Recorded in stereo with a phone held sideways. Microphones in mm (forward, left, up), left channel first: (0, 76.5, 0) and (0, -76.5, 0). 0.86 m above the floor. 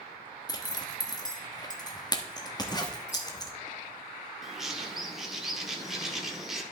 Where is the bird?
Centre (ahead or behind), 1.1 m.